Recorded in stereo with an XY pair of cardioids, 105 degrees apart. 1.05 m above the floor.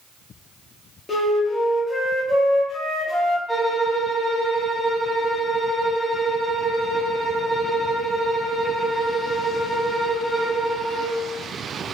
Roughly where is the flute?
Ahead left.